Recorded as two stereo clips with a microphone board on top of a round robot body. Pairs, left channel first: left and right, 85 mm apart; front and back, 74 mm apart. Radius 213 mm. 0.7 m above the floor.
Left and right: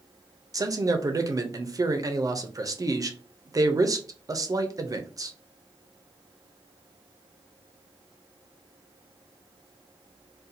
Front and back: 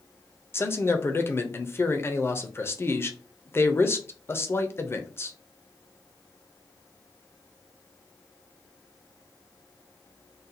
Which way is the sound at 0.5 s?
50° right.